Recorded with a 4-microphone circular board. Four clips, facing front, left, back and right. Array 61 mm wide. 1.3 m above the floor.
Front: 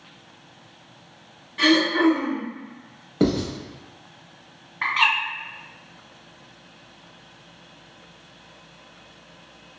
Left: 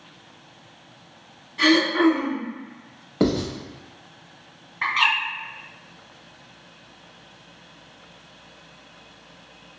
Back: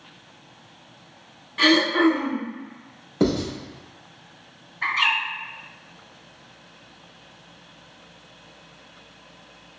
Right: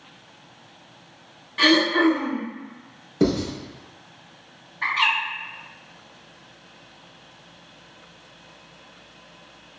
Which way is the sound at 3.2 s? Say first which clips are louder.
Even, even; 70° left.